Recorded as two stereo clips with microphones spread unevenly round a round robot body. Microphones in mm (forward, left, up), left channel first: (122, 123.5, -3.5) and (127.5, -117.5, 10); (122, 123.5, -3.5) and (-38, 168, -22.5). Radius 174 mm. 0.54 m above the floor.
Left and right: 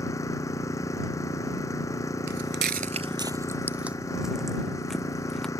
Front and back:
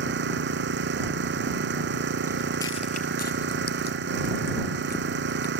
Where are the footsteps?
120° right; by 5.5 s 5° left.